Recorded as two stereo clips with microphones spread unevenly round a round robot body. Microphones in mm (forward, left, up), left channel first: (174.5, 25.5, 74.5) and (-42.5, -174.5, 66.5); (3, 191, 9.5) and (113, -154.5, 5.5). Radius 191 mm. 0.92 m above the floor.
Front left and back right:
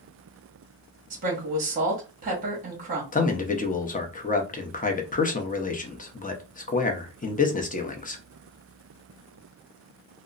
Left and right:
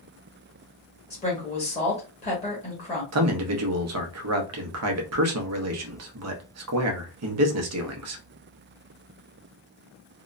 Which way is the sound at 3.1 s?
25° right.